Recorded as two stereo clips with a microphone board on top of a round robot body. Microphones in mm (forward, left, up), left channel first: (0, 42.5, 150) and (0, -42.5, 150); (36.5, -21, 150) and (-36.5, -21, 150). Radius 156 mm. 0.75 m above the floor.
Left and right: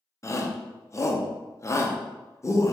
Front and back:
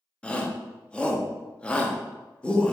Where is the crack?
I don't hear a crack.